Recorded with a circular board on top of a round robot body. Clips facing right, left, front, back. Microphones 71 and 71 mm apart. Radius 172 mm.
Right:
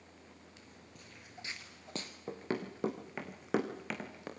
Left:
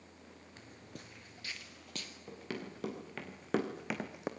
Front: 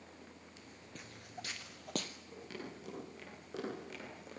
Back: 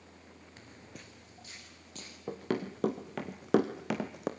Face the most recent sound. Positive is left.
turn(degrees=160)